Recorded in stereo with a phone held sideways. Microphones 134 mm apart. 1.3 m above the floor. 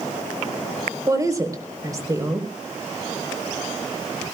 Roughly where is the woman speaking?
Right.